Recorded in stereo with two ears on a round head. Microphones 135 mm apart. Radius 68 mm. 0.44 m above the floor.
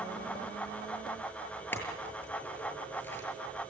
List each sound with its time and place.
1.7 s a clink: 15° left (ahead or behind), 7 m